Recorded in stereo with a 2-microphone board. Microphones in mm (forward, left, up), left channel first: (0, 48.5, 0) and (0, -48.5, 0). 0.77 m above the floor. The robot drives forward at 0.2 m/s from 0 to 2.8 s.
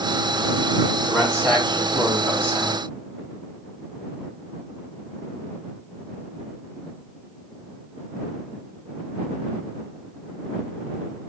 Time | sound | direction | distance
1.1 | a man speaking | 30° right (ahead or behind) | 2.0 m